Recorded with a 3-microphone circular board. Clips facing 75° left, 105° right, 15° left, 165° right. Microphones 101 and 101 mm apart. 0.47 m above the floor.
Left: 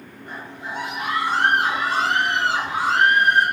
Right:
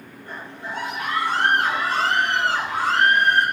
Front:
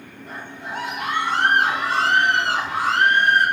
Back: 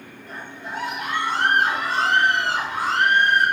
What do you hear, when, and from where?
0.3 s a scream: 5° left, 6 m